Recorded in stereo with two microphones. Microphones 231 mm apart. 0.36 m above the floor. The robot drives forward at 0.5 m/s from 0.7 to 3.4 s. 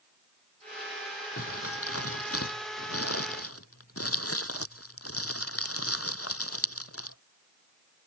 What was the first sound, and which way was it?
Crumpling, 80° left.